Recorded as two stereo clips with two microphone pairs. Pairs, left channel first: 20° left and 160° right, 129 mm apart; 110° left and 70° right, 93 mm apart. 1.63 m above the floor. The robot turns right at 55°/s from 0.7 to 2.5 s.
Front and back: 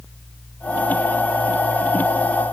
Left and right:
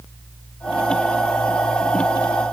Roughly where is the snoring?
I don't hear snoring.